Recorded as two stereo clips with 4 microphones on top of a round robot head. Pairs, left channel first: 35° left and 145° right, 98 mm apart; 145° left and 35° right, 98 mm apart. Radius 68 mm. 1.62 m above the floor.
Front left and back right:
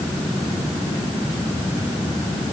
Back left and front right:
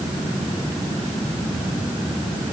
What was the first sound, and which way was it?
Only background noise.